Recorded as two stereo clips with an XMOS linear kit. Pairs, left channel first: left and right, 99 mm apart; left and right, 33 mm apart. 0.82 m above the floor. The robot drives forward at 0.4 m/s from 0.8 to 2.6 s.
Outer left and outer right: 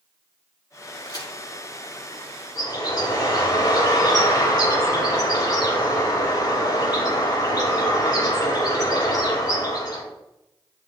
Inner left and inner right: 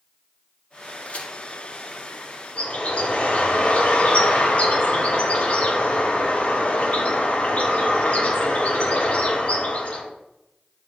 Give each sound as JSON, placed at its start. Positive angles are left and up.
{"t": 1.1, "sound": "a crack", "side_deg": 50, "distance_m": 4.0}
{"t": 2.5, "sound": "a bird", "side_deg": 45, "distance_m": 4.0}